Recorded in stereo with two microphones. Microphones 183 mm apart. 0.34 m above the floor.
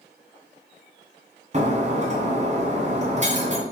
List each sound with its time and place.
1.5 s breaking glass: 40° right (ahead or behind), 2 m